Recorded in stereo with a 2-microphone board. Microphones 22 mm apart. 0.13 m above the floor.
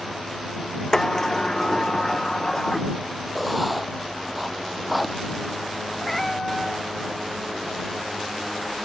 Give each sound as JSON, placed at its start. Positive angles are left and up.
{"t": 0.9, "sound": "a sliding door", "side_deg": 25}
{"t": 3.4, "sound": "writing", "side_deg": 0}
{"t": 6.0, "sound": "a cat meowing", "side_deg": 15}